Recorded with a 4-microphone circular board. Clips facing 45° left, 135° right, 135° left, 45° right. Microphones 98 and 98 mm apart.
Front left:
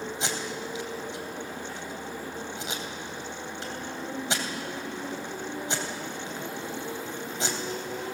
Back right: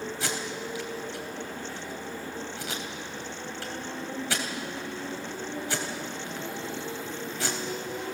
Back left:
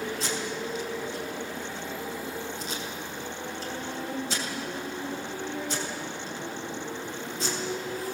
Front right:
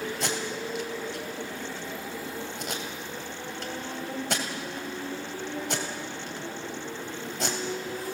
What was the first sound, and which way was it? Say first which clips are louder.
Tape being pulled: even, even; 25° right.